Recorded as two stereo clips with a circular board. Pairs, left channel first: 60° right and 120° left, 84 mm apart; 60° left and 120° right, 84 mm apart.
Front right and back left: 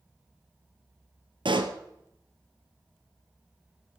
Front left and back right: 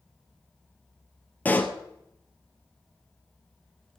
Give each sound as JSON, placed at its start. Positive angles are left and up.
{"t": 1.4, "sound": "a pop", "azimuth_deg": 130, "distance_m": 1.2}